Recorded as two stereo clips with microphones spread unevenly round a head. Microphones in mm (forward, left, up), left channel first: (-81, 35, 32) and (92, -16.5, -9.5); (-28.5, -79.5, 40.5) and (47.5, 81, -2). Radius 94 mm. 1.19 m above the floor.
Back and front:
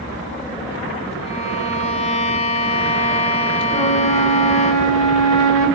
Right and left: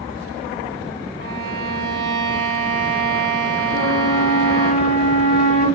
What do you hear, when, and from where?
1.2 s a violin: 110° left, 0.5 m
3.7 s a flute: 115° left, 1.0 m